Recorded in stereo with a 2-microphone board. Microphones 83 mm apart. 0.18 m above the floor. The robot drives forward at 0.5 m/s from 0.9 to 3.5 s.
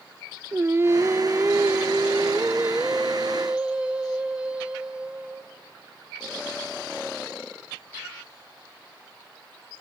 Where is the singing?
30° right (ahead or behind), 0.9 m; by 5.5 s 10° right (ahead or behind), 2 m.